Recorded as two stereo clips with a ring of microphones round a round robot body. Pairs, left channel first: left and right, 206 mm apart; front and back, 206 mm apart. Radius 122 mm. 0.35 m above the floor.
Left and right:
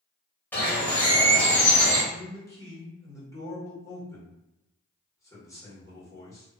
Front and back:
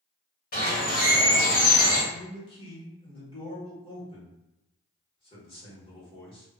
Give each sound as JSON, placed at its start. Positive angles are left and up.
{"t": 0.5, "sound": "a bird", "azimuth_deg": 10, "distance_m": 1.3}
{"t": 2.1, "sound": "a man speaking", "azimuth_deg": 30, "distance_m": 1.3}